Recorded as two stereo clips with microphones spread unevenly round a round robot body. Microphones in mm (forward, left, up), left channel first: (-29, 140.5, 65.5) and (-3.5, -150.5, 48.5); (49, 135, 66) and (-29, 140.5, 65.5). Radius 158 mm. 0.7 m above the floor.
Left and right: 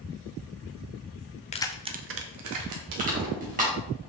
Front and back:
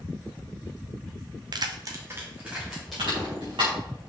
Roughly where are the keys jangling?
Behind.